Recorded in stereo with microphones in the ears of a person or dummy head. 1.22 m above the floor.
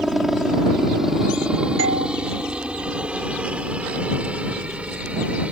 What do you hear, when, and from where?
0.0 s a helicopter: 5° right (ahead or behind); by 5.5 s 10° right (ahead or behind)
1.8 s a doorbell: 70° right (ahead or behind)